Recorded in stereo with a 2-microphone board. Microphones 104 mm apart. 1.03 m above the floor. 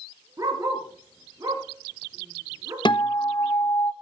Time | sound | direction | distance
0.4 | a dog barking | 35° right (ahead or behind) | 4 m
2.9 | a guitar | 50° left (ahead or behind) | 1.2 m